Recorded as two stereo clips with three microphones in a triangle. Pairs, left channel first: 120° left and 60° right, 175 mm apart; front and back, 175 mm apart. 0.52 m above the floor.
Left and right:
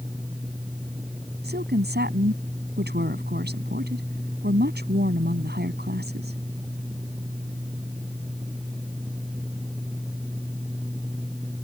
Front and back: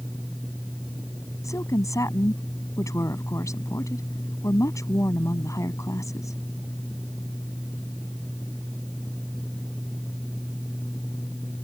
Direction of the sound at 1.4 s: 70° right.